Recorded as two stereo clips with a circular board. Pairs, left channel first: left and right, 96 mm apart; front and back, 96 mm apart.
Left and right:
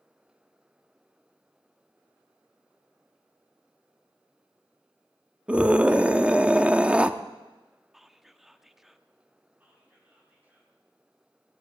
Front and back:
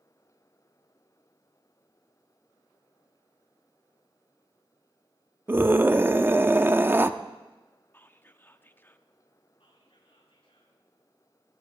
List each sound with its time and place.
5.5 s a scream: 150° right, 0.6 m
7.9 s whispering: 5° right, 0.6 m
9.6 s whispering: 15° right, 6 m